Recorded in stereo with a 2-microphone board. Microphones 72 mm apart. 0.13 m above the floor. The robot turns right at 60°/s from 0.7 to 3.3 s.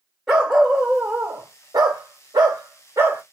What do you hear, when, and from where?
0.3 s a dog barking: 175° right, 2 m; by 3.2 s 25° right, 2 m